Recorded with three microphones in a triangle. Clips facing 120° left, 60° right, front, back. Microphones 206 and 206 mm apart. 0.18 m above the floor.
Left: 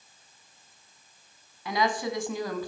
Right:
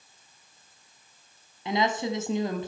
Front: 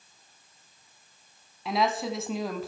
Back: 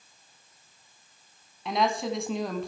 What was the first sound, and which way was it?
A woman speaking, 85° right.